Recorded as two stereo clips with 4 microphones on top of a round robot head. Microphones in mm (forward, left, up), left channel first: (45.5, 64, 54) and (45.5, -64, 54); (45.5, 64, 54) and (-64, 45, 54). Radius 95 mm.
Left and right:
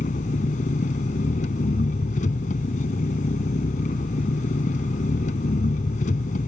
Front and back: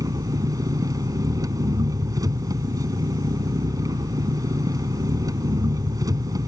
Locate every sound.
0.0 s an engine running: 130° left